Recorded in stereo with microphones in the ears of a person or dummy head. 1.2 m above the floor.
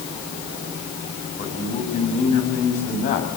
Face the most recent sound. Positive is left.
turn(degrees=40)  # may be behind; listen again after turning